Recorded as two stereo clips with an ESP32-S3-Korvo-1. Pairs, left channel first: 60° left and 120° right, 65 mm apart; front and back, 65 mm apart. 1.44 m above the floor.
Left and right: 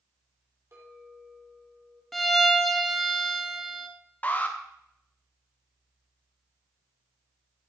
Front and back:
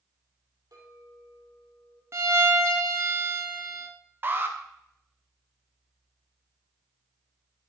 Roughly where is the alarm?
Behind left.